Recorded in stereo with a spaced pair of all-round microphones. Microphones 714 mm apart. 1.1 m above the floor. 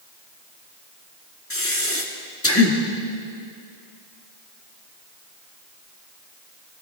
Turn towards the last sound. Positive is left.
turn(degrees=20)  # may be behind; listen again after turning